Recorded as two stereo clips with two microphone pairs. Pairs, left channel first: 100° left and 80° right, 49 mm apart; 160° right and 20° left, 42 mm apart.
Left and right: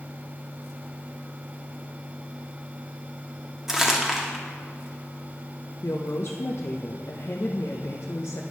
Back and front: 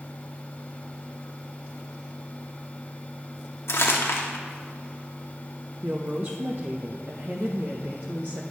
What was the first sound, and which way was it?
Crumpling, 160° right.